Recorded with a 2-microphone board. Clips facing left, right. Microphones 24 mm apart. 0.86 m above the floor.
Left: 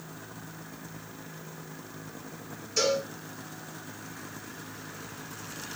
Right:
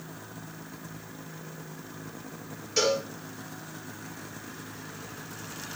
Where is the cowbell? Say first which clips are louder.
Right 1 dB; 45° right (ahead or behind), 2 m.